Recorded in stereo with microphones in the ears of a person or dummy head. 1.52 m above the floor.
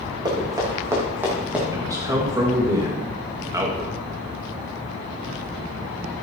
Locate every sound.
0.2 s running footsteps: 25° right (ahead or behind), 5 m; by 1.6 s 5° right (ahead or behind), 4.5 m
1.7 s a man speaking: 20° right (ahead or behind), 2 m